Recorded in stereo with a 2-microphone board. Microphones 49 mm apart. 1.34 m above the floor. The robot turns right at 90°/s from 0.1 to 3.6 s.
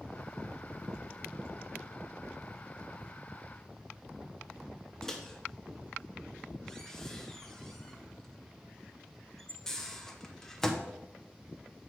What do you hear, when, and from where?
5.0 s a microwave: 10° left (ahead or behind), 0.8 m